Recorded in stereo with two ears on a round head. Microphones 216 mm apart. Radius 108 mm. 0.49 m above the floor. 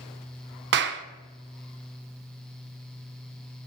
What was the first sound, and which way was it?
A clap, 45° right (ahead or behind).